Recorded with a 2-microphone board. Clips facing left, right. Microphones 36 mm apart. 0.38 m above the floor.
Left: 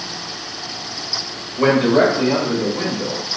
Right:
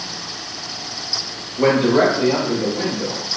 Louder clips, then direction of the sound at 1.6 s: Left 1 dB; 30° left (ahead or behind).